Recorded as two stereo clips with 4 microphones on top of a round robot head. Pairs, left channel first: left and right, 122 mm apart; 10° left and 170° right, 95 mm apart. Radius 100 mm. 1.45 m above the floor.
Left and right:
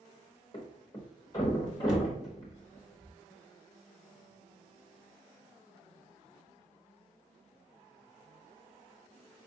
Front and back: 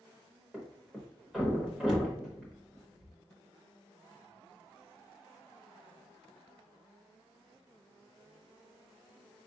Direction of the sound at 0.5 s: 115° left.